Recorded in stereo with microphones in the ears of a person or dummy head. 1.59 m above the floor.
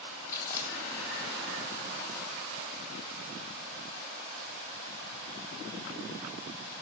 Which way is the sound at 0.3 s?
15° left (ahead or behind).